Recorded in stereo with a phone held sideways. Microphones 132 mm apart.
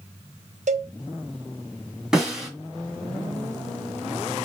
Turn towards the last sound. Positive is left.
turn(degrees=-5)  # may be behind; listen again after turning